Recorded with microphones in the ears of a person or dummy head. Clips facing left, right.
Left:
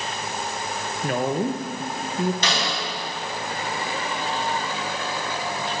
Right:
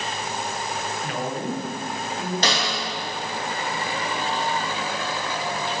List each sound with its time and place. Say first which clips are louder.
1.0 s a woman speaking: left 7 dB; 45° left (ahead or behind), 0.9 m
2.4 s a snare drum: right 1 dB; 40° right (ahead or behind), 2.5 m